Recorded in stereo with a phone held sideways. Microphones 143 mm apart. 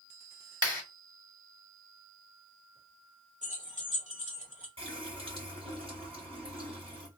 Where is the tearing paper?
No tearing paper in this recording.